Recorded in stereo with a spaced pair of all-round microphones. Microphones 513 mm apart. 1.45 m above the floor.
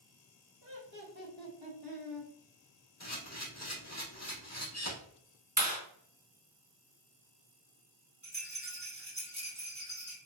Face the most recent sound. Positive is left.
turn(degrees=-10)  # may be behind; listen again after turning